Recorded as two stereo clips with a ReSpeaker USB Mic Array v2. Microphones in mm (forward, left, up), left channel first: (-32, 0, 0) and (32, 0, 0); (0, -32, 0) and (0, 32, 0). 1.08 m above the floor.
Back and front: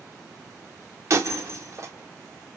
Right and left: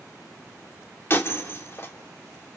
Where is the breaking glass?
40° right, 1.9 m.